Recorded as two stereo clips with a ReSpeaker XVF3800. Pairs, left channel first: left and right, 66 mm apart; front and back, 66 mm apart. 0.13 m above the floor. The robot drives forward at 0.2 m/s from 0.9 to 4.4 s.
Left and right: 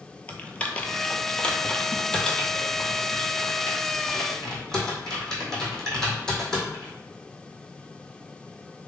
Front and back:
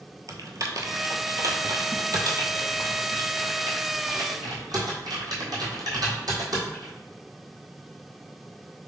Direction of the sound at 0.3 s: 160° left.